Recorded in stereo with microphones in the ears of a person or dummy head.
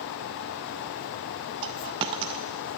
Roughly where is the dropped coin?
Centre.